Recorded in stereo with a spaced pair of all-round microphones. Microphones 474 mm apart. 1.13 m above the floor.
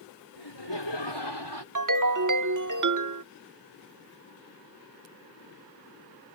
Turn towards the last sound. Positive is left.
turn(degrees=-40)  # may be behind; listen again after turning